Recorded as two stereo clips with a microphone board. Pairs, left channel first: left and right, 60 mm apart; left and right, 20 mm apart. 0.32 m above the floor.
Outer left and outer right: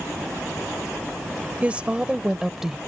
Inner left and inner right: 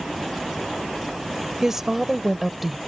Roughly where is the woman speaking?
Right.